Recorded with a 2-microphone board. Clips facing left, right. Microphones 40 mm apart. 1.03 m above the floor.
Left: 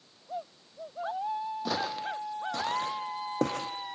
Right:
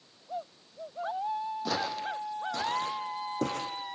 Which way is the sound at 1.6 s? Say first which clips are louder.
Even; 10° left (ahead or behind).